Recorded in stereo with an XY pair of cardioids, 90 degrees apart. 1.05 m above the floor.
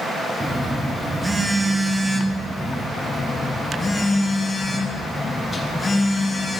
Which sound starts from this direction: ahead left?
A phone buzzing, at 3.0 s.